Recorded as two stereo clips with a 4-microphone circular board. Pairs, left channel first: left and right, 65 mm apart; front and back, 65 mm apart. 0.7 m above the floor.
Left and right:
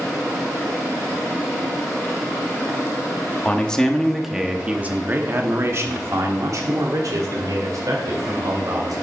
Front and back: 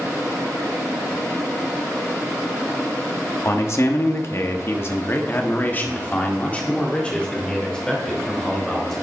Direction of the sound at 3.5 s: 25° left.